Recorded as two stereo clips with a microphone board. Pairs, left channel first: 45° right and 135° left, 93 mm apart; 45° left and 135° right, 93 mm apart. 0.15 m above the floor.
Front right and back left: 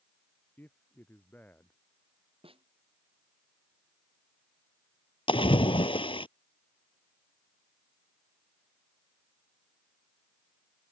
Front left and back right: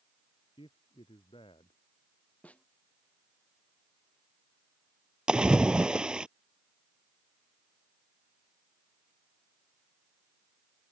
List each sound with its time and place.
0.6 s a man speaking: 25° left; by 1.8 s 30° left
2.4 s a snare drum: 120° left
5.3 s a splash: 55° right